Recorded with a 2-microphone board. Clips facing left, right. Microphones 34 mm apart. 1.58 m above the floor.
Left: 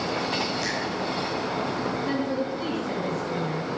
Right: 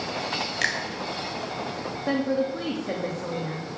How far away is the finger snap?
About 3 m.